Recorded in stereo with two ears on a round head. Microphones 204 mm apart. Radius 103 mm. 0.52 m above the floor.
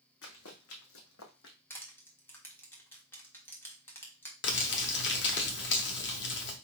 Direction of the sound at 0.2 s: 70° left (ahead or behind).